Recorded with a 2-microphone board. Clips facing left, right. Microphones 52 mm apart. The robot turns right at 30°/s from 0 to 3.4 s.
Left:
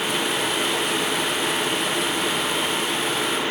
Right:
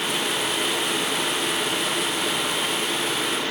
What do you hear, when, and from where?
Only background noise.